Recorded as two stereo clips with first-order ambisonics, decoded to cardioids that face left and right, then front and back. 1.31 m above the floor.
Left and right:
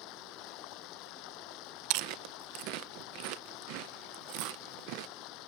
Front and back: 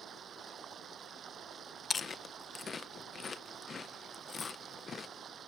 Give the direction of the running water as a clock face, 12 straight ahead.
8 o'clock.